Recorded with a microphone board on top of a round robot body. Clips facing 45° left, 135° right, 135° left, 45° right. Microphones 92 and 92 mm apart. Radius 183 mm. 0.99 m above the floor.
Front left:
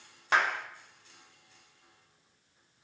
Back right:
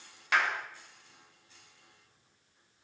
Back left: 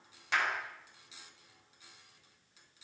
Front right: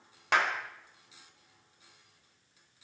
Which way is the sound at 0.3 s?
10° right.